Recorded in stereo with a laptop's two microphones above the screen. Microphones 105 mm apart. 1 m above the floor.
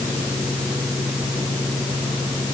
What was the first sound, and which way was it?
Only background noise.